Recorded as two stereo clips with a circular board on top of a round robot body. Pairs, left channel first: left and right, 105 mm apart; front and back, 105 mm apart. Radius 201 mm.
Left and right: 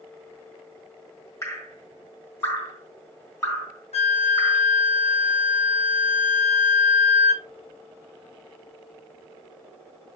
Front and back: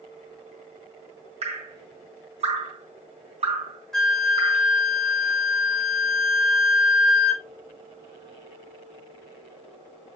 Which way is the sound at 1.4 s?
150° left.